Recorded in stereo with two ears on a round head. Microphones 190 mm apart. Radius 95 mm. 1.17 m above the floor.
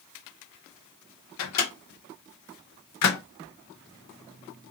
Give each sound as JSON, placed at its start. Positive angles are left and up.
{"t": 1.4, "sound": "a microwave", "side_deg": 80, "distance_m": 1.0}